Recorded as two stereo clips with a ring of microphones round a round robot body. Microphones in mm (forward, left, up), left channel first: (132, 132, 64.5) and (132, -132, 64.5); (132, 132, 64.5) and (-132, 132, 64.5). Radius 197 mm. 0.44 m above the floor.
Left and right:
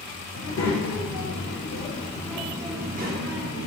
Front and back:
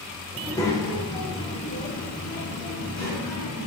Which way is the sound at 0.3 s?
80° left.